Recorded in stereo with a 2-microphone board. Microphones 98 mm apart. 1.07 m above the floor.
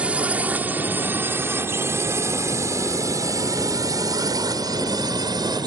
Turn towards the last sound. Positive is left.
turn(degrees=-45)  # may be behind; listen again after turning